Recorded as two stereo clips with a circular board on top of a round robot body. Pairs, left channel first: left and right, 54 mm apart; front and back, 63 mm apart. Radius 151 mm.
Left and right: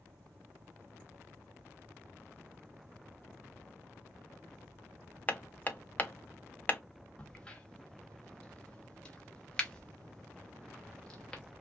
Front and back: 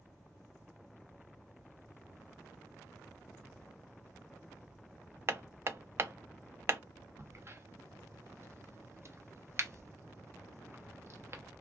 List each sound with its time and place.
5.3 s hammering: 140° left, 0.7 m
7.2 s a crack: 155° left, 0.9 m